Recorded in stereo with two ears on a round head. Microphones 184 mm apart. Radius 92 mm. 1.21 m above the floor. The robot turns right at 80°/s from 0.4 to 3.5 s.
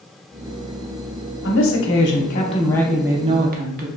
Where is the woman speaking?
60° left, 0.8 m; by 3.9 s 130° right, 0.8 m.